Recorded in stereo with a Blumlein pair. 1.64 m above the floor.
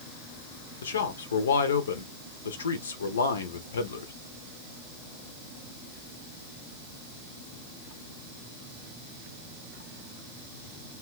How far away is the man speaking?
About 0.7 m.